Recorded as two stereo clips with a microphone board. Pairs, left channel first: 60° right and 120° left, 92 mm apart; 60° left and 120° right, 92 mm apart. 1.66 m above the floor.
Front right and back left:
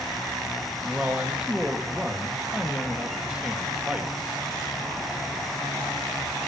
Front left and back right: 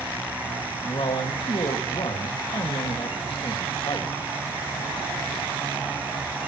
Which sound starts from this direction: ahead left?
A man speaking, at 0.8 s.